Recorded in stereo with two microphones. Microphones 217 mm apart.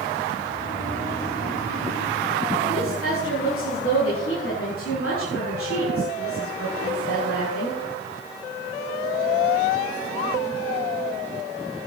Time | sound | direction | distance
0.4 | snoring | 15° left (ahead or behind) | 8 m
2.7 | a woman speaking | 70° left (ahead or behind) | 6 m